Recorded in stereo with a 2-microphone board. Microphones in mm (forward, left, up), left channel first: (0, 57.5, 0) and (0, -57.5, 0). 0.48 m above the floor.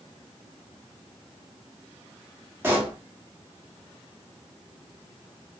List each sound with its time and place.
2.6 s a pop: 20° right (ahead or behind), 0.7 m